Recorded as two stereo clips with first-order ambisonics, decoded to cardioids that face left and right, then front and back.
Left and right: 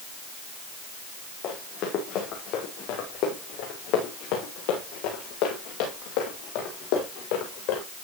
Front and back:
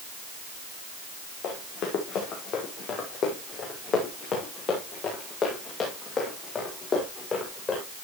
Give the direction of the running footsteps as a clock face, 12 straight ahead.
11 o'clock.